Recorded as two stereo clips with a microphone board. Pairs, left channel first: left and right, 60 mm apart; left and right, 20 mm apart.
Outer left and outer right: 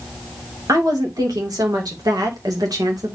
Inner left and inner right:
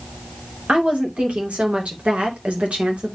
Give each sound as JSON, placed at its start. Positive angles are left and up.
{"t": 0.7, "sound": "a woman speaking", "side_deg": -75, "distance_m": 2.5}